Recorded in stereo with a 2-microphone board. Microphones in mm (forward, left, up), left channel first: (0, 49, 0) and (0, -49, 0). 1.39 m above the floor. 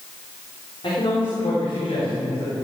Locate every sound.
0.8 s a man speaking: 60° left (ahead or behind), 4 m; by 2.5 s 70° left (ahead or behind), 4.5 m